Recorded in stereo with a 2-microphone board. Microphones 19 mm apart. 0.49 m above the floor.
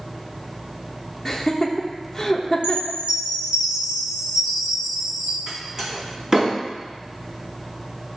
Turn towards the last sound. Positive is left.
turn(degrees=-35)  # may be behind; listen again after turning